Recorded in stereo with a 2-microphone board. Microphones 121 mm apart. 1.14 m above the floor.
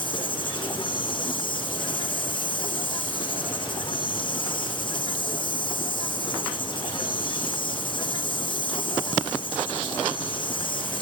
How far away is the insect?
About 0.9 m.